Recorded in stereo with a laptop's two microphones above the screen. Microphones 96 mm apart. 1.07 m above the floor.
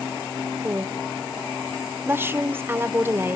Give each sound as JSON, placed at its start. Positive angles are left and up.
{"t": 0.6, "sound": "a woman speaking", "side_deg": -25, "distance_m": 0.7}